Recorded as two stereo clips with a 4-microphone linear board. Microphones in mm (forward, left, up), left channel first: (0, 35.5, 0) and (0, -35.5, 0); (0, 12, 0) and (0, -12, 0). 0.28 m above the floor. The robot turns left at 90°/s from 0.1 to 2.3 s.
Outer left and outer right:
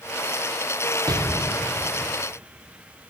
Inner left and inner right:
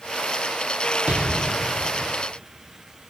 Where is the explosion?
110° right, 1.4 m; by 2.1 s 155° left, 1.4 m.